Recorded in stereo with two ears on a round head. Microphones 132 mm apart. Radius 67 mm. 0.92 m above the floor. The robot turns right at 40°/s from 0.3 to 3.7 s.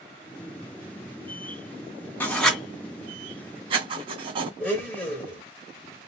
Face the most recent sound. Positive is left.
turn(degrees=15)  # may be behind; listen again after turning